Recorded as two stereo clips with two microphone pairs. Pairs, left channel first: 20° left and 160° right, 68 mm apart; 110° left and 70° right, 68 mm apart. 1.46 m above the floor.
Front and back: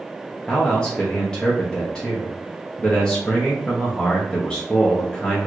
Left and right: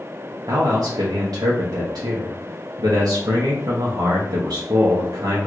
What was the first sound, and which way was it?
A man speaking, 65° right.